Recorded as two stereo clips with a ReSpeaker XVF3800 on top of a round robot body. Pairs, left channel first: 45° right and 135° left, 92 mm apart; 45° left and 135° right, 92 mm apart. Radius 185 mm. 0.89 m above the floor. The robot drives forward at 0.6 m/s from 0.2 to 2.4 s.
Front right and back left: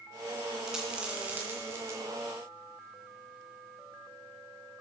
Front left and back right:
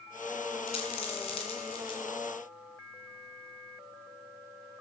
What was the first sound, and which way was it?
A dropped coin, 50° left.